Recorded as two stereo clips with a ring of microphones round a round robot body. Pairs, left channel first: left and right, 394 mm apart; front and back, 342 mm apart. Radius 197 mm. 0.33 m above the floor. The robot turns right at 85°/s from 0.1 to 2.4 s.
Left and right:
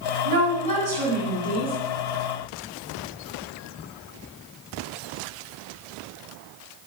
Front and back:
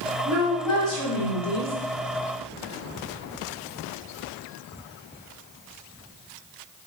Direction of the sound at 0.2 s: 115° right.